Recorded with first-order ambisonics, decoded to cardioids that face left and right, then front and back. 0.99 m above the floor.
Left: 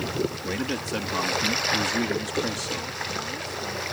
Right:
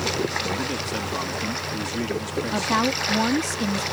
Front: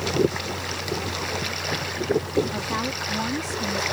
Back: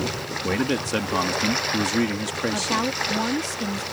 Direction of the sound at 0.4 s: 175° left.